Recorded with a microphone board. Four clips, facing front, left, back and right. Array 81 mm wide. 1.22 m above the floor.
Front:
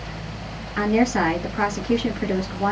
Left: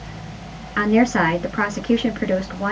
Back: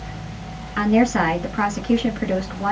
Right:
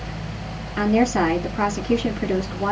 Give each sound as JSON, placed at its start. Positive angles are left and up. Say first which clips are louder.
{"t": 0.8, "sound": "a woman speaking", "louder": "left 2 dB, back 2 dB", "azimuth_deg": 100, "distance_m": 2.0}